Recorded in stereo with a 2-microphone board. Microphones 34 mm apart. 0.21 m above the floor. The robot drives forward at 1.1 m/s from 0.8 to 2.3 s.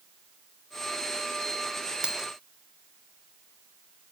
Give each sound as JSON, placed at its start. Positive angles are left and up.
{"t": 2.0, "sound": "a dropped coin", "side_deg": -25}